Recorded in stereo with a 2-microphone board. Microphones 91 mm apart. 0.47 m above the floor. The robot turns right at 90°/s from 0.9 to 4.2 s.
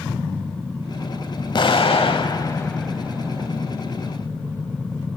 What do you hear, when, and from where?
1.6 s an explosion: 55° left, 0.9 m; by 3.5 s 130° right, 0.9 m